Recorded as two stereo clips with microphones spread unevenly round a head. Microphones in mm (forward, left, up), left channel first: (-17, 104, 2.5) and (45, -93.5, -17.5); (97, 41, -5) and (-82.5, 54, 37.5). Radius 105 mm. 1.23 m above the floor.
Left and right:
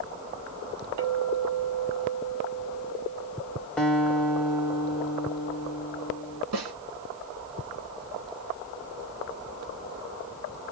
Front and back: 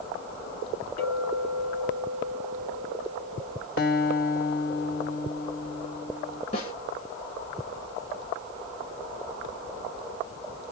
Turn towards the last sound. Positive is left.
turn(degrees=-70)